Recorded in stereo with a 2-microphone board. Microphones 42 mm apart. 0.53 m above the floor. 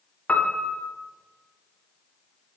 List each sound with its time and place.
0.3 s a piano: 30° left (ahead or behind), 1.0 m